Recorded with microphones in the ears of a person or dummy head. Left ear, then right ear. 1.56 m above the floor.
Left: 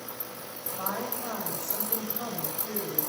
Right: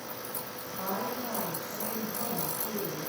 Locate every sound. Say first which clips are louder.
0.7 s a woman speaking: left 1 dB; 75° left (ahead or behind), 9.5 m